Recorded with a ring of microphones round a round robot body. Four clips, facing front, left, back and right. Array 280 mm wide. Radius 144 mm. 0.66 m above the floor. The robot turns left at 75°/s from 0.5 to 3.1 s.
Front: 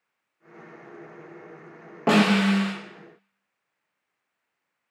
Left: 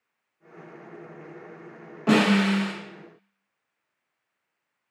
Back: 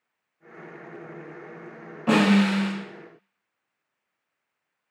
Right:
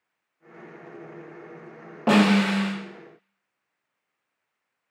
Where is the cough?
No cough in this recording.